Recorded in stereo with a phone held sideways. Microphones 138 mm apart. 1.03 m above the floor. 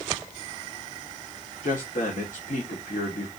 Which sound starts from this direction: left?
A man speaking, at 1.6 s.